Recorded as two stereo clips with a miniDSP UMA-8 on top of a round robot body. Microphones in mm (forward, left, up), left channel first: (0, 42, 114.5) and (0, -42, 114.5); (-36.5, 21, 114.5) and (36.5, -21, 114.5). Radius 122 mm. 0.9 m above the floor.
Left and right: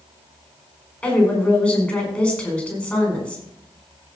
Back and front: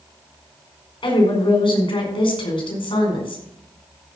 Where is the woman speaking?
165° left, 5 m.